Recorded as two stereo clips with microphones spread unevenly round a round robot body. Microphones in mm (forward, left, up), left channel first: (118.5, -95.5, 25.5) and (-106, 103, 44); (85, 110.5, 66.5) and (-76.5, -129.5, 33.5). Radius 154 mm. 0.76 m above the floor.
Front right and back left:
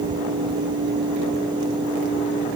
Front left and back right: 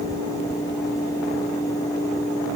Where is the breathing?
I don't hear breathing.